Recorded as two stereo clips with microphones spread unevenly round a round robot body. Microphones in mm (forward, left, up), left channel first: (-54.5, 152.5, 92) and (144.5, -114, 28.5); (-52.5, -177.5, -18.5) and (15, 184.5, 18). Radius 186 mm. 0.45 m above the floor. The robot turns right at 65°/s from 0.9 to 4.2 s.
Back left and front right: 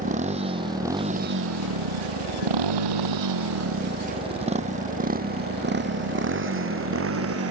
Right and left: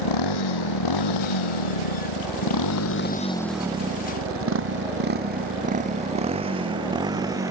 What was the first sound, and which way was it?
A motorcycle, 125° right.